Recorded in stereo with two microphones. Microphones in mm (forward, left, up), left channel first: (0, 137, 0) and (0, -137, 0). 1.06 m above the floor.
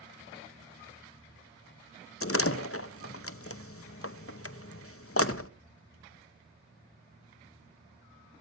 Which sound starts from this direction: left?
A door slam, at 2.2 s.